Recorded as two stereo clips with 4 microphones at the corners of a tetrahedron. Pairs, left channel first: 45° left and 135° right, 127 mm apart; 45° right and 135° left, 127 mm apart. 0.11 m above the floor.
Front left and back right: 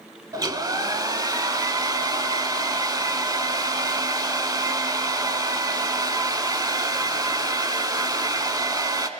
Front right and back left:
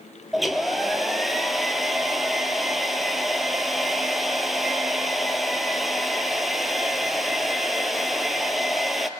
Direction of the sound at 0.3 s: 135° right.